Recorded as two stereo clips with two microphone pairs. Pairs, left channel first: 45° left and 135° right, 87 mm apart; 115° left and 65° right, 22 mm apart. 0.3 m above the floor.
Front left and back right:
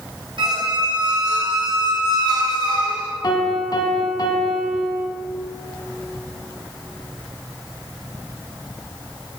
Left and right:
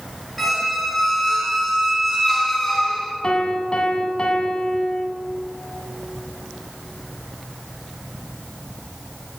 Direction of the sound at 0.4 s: 155° right.